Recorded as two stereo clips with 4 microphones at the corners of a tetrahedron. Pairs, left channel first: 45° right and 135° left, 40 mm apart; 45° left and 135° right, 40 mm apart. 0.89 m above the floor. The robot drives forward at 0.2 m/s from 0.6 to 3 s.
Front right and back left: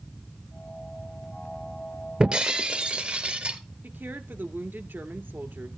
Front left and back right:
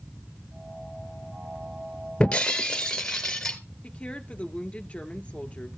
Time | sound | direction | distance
2.2 | breaking glass | 90° left | 1.0 m
3.8 | a woman speaking | 105° left | 1.8 m